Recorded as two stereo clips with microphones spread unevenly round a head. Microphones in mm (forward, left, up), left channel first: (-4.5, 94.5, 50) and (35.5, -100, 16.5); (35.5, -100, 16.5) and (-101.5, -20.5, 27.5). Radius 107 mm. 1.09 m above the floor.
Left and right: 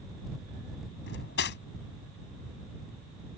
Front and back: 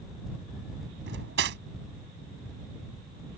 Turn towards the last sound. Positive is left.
turn(degrees=140)